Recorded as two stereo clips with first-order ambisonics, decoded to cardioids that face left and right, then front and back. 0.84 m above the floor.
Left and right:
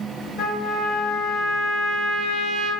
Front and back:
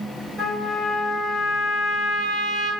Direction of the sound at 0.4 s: 110° left.